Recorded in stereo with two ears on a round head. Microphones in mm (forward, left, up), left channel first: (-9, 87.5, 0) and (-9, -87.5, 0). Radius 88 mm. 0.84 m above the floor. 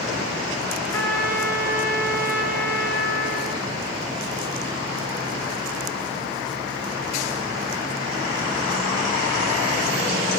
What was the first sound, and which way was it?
A trumpet, 15° left (ahead or behind).